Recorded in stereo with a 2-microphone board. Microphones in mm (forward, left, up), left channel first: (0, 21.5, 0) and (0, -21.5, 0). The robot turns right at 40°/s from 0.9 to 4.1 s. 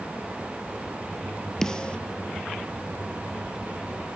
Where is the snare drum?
10° left (ahead or behind), 1.0 m; by 2.0 s 25° left (ahead or behind), 1.0 m.